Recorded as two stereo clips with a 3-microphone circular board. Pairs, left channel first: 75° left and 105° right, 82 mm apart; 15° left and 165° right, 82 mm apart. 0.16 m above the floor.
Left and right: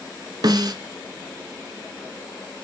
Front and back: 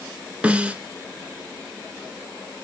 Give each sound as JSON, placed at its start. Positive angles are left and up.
{"t": 0.4, "sound": "a snare drum", "azimuth_deg": -95, "distance_m": 1.0}